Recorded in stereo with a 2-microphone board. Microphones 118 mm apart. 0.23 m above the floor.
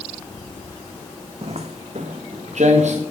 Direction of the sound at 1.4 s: 65° right (ahead or behind).